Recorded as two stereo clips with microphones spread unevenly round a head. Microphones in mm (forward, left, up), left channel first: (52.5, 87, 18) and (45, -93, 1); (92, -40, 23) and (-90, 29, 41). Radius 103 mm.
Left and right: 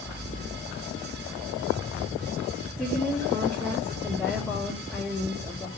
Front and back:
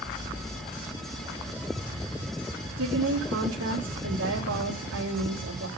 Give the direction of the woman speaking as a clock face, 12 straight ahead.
6 o'clock.